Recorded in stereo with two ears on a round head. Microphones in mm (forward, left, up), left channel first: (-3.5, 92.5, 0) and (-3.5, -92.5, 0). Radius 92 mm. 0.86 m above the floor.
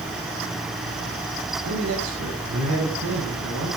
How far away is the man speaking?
About 5.5 m.